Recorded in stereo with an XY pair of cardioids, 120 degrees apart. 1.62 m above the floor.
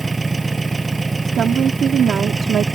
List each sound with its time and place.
0.0 s an engine running: 20° right
1.2 s a woman speaking: 55° right